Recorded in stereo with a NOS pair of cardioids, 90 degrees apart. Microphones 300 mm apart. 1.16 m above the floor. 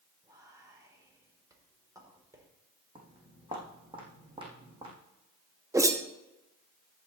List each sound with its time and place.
0.2 s whispering: 10° right, 4 m
3.0 s footsteps: 15° right, 4 m
5.7 s a whoosh: 10° right, 1.2 m